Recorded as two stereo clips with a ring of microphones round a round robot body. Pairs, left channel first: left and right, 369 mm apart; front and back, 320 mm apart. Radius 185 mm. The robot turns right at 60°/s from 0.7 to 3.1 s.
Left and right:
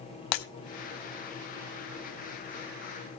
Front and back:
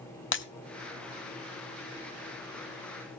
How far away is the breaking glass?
About 1.2 m.